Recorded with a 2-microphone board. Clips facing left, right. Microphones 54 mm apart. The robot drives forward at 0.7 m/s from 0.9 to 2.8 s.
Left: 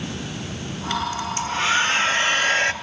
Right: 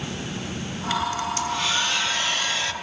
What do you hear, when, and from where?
1.4 s a hair dryer: 40° left (ahead or behind), 3 m; by 2.7 s 55° left (ahead or behind), 2 m